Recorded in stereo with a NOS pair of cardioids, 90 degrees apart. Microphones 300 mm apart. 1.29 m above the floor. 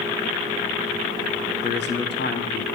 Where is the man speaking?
40° left, 1.3 m.